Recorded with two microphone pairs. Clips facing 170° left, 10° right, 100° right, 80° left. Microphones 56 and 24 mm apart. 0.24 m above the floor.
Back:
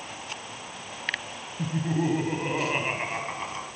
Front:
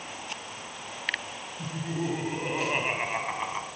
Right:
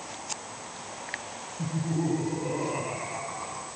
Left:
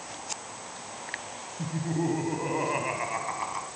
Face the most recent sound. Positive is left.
turn(degrees=45)